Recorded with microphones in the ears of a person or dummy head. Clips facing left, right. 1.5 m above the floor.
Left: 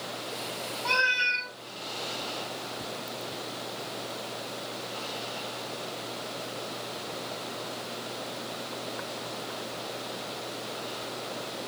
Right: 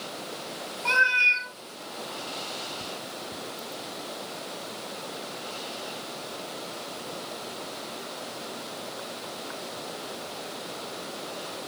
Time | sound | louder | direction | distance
0.8 | a cat meowing | right 3 dB | 5° left (ahead or behind) | 0.9 m